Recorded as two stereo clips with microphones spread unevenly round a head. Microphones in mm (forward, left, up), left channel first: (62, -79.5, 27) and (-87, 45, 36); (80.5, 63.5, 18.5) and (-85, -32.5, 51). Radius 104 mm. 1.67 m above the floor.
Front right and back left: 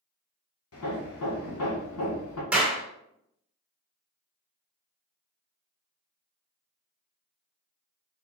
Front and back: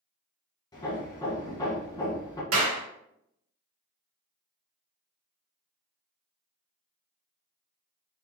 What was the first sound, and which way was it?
Hammering, 45° right.